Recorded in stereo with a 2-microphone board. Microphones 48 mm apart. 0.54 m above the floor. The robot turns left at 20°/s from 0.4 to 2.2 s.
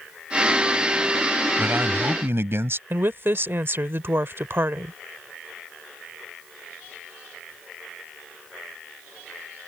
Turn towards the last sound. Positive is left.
turn(degrees=-55)  # may be behind; listen again after turning